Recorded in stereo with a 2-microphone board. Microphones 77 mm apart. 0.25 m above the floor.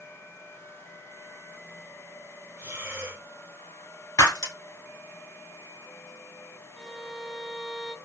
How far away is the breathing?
About 2 m.